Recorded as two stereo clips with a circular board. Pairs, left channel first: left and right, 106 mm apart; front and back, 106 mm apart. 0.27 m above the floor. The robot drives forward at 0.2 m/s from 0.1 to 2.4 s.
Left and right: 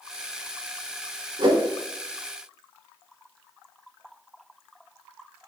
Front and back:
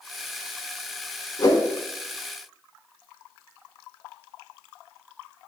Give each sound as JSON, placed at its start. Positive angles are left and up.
{"t": 1.4, "sound": "a whoosh", "azimuth_deg": -55, "distance_m": 0.6}